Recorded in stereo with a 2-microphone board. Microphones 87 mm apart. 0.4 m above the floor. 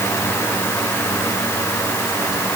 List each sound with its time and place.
Only background noise.